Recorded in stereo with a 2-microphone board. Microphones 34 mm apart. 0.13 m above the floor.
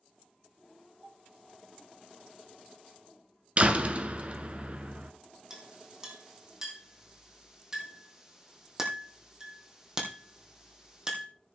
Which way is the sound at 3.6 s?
40° right (ahead or behind).